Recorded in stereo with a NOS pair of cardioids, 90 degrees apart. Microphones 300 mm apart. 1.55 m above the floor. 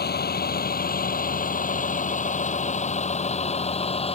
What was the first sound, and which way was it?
A vehicle, 30° left.